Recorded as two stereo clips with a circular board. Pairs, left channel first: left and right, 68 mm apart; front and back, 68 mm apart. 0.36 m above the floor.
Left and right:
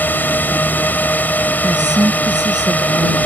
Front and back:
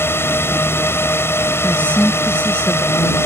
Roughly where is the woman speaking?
Right.